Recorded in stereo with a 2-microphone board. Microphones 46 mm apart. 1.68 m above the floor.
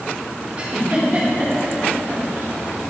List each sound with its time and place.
0.6 s a giggle: 25° right (ahead or behind), 4.5 m